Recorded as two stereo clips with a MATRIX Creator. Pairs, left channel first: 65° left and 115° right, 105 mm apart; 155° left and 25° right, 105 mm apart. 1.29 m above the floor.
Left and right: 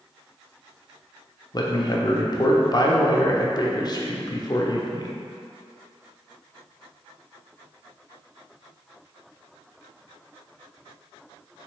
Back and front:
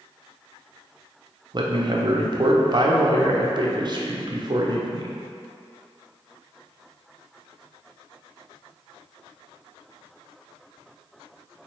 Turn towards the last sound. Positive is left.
turn(degrees=20)